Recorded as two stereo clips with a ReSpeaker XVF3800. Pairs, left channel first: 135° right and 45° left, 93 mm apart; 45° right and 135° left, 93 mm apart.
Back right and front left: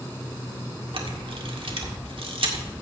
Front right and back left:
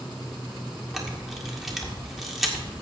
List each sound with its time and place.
0.9 s a camera shutter: 50° left, 1.9 m